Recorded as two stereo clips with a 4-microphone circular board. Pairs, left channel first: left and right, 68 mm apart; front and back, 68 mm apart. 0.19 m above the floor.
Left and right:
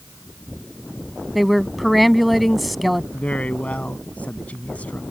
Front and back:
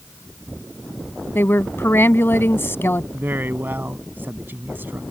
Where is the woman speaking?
Straight ahead.